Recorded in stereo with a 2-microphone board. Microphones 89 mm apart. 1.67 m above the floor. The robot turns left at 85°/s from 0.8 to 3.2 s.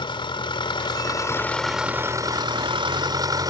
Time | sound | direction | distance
0.0 | an engine running | 75° left | ?